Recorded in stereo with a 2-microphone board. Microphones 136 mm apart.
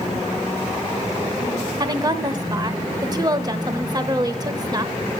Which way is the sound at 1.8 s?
30° right (ahead or behind).